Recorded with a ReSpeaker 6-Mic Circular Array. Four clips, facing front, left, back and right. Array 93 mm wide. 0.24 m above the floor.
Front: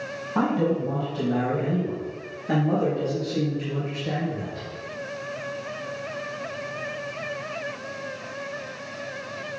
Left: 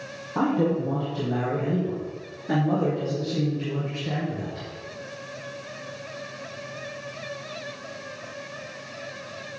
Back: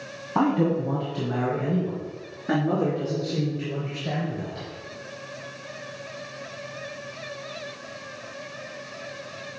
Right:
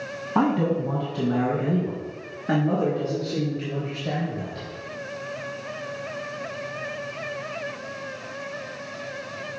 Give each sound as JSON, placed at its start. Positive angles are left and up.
{"t": 0.3, "sound": "a man speaking", "azimuth_deg": -120, "distance_m": 1.8}